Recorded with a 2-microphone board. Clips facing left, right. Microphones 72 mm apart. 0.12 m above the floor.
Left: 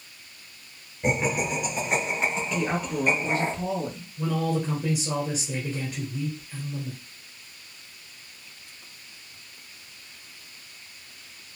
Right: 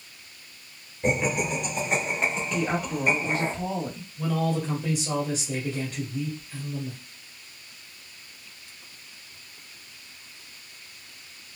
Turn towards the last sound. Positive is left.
turn(degrees=10)  # may be behind; listen again after turning